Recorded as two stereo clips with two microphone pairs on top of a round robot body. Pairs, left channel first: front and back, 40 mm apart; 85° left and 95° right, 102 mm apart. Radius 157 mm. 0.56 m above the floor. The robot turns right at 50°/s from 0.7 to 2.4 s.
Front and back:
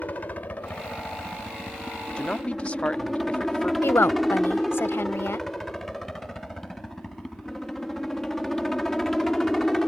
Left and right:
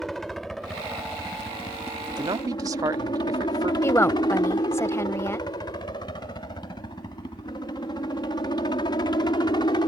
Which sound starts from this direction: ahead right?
A man speaking, at 2.2 s.